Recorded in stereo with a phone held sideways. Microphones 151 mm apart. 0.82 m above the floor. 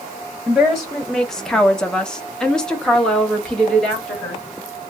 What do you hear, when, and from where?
0.5 s a woman speaking: centre (ahead or behind), 0.8 m; by 4.4 s 5° left (ahead or behind), 1.6 m